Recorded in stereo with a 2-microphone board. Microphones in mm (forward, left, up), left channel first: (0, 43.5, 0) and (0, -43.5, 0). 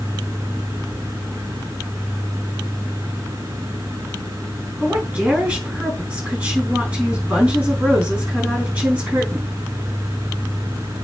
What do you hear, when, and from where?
4.8 s a woman speaking: 15° right (ahead or behind), 4.5 m